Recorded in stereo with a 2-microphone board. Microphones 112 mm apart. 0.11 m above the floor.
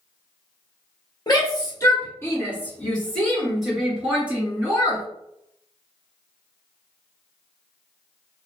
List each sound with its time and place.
1.3 s a shout: 40° left (ahead or behind), 1.7 m; by 5.0 s 20° right (ahead or behind), 2.5 m